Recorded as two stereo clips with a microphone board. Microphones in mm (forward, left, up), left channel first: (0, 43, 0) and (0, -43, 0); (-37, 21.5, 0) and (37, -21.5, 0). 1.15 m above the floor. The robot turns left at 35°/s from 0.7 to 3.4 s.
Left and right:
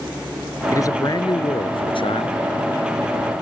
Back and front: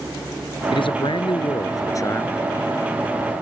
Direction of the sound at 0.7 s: 145° left.